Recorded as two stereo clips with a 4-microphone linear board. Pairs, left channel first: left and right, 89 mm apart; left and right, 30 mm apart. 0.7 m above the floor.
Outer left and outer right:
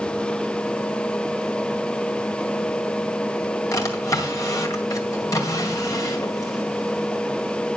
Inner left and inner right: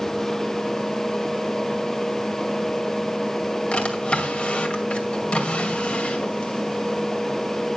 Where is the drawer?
40° left (ahead or behind), 2 m.